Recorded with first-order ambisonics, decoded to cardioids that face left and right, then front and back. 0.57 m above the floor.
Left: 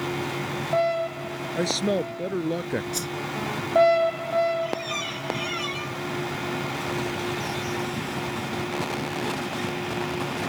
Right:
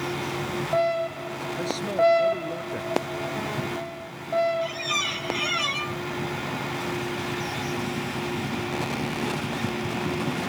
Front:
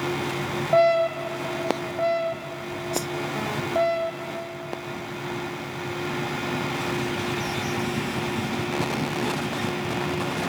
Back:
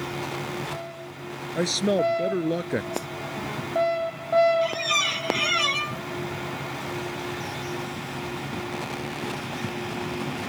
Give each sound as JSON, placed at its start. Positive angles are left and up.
{"t": 1.6, "sound": "a man speaking", "azimuth_deg": 150}
{"t": 2.9, "sound": "a whoosh", "azimuth_deg": 65}
{"t": 4.6, "sound": "a squeak", "azimuth_deg": -160}